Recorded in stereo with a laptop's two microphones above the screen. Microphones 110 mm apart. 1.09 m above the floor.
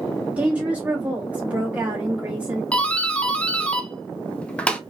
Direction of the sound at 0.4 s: 10° right (ahead or behind).